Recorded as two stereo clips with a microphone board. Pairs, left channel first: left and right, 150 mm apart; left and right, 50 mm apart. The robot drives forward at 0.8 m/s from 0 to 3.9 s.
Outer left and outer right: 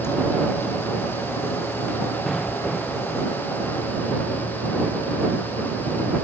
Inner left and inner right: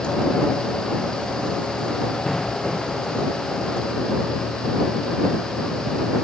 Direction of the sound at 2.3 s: Centre (ahead or behind).